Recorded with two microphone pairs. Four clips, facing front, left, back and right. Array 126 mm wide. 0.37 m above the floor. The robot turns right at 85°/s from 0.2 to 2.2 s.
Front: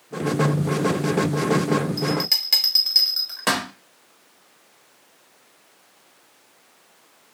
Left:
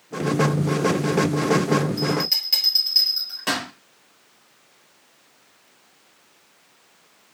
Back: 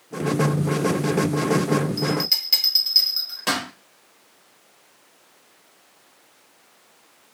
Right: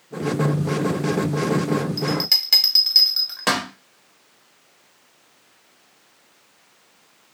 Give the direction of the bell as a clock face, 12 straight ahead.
2 o'clock.